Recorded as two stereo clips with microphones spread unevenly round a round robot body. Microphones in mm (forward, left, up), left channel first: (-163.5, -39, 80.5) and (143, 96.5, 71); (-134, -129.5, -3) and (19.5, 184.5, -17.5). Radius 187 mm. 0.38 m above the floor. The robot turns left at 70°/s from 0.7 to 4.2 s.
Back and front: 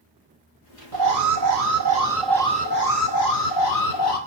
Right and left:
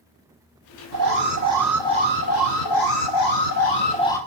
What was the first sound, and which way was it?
An alarm, 30° left.